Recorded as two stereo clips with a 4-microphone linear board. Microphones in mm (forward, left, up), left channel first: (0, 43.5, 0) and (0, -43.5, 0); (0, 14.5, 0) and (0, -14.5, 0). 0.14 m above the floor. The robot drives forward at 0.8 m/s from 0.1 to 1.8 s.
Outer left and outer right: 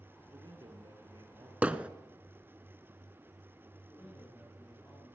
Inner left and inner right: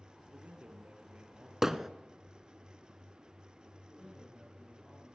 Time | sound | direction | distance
0.3 | a man speaking | 60° right (ahead or behind) | 3.5 m
1.6 | hammering | 15° right (ahead or behind) | 0.6 m
3.9 | a man speaking | 20° left (ahead or behind) | 5.5 m